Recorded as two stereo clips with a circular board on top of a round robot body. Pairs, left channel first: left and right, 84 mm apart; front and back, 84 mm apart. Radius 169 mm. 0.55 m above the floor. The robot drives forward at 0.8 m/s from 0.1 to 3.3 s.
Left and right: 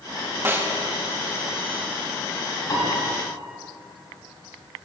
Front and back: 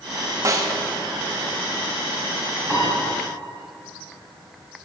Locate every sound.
0.5 s a snare drum: 145° right, 1.1 m; by 0.7 s 150° right, 1.2 m
2.7 s a piano: 125° left, 4.5 m